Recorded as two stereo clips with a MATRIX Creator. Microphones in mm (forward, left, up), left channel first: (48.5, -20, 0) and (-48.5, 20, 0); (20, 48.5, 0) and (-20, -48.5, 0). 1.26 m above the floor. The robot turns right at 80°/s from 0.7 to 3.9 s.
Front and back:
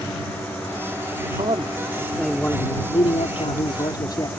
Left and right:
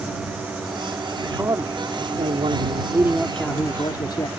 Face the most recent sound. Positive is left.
turn(degrees=25)